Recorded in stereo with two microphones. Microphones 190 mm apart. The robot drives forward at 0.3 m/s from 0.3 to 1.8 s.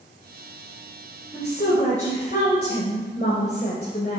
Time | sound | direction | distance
1.3 | a woman speaking | 40° left (ahead or behind) | 2 m